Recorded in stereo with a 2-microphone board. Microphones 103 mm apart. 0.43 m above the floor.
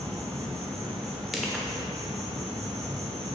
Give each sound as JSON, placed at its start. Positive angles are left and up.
{"t": 0.0, "sound": "an insect", "side_deg": -80, "distance_m": 3.0}
{"t": 1.3, "sound": "crushing", "side_deg": 0, "distance_m": 1.1}